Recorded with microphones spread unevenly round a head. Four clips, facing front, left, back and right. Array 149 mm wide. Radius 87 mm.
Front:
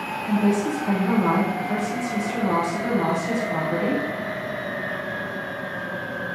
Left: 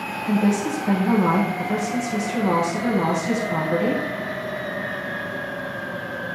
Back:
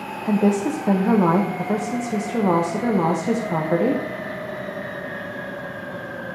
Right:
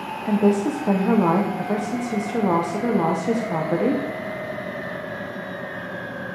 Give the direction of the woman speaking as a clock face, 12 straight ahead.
5 o'clock.